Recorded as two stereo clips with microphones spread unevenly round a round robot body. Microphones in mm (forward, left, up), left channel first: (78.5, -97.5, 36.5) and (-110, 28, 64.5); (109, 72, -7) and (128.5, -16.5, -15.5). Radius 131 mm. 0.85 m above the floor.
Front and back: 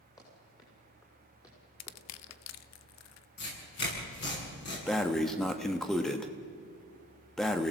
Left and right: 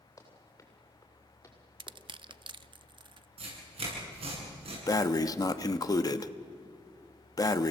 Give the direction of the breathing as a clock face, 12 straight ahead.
10 o'clock.